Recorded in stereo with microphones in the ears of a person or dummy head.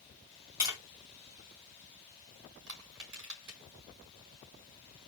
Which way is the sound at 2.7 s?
70° right (ahead or behind).